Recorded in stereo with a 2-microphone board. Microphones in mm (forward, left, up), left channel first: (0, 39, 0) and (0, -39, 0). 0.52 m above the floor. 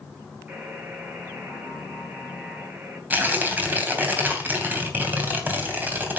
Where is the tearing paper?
20° right (ahead or behind), 3 m.